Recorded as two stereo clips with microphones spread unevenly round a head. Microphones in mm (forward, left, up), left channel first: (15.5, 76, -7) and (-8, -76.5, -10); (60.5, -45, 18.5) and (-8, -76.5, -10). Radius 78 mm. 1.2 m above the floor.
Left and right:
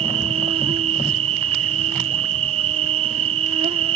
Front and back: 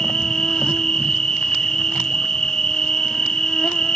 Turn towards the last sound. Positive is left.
turn(degrees=-85)